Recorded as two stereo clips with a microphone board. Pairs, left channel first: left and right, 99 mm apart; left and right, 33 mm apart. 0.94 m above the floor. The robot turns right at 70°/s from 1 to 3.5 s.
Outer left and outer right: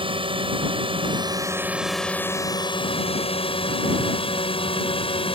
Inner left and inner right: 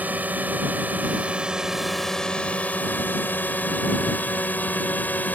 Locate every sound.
0.0 s a drone: 60° right (ahead or behind); by 5.3 s 65° left (ahead or behind)